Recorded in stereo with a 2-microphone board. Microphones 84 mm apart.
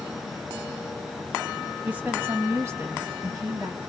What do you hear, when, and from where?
1.9 s a woman speaking: 15° right (ahead or behind), 1.3 m; by 3.8 s 40° right (ahead or behind), 1.8 m